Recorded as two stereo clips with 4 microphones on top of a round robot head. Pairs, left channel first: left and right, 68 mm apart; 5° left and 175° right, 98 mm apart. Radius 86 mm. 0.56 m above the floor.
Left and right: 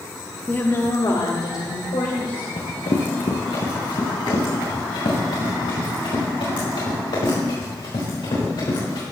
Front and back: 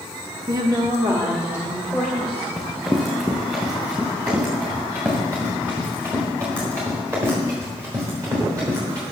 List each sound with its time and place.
0.5 s a woman speaking: 160° left, 1.1 m; by 2.5 s 105° left, 3.5 m
2.6 s running footsteps: 100° left, 4 m; by 9.0 s 125° left, 7.5 m